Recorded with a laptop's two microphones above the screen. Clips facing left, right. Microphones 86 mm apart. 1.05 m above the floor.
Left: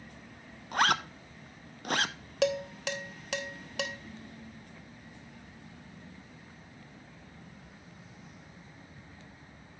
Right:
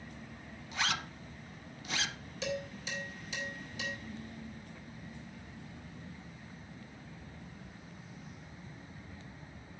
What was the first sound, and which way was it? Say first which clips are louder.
A zipper: left 9 dB; 50° left (ahead or behind).